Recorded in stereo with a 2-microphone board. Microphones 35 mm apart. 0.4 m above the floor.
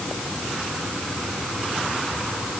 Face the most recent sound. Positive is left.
No sound to turn to.